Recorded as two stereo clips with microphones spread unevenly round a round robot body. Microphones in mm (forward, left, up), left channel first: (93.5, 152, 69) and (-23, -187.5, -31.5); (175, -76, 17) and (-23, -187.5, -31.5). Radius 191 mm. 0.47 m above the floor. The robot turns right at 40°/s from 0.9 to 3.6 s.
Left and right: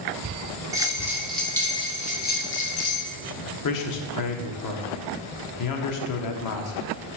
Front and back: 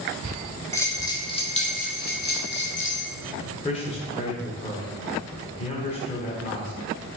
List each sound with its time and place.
0.7 s a bell: 60° right, 1.6 m; by 3.0 s 25° left, 1.6 m
3.6 s a man speaking: 100° left, 0.9 m